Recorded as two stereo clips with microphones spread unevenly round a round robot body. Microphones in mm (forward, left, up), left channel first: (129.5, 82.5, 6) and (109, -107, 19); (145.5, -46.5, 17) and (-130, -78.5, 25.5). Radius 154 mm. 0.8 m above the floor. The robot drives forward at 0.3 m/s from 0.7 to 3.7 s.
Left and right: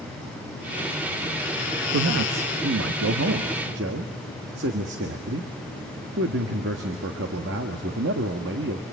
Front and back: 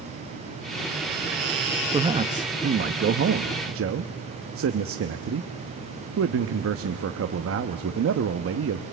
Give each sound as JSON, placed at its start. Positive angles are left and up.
{"t": 1.9, "sound": "a man speaking", "azimuth_deg": -100, "distance_m": 0.8}